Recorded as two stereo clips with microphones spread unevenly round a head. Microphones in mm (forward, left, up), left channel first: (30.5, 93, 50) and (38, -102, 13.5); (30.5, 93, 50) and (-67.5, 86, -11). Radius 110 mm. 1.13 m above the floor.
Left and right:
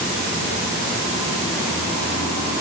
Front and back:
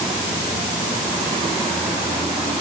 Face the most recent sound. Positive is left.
No sound to turn to.